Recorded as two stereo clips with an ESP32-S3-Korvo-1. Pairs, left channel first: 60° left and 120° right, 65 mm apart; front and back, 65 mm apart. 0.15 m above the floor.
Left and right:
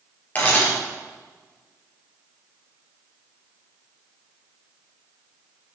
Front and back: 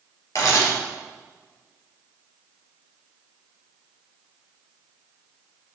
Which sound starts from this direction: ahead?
A camera shutter, at 0.3 s.